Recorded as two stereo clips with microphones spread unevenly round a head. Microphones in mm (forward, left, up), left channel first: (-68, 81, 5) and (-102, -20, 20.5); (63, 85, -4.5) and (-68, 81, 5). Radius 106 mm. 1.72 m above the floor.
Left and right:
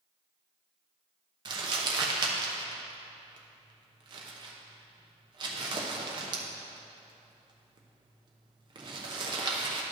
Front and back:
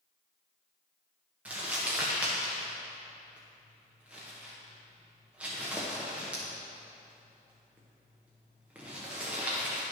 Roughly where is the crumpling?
Right.